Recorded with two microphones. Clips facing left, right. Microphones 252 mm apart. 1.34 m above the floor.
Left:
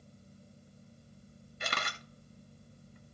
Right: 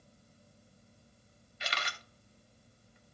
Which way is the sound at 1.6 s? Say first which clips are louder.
Left 3 dB; 55° left (ahead or behind).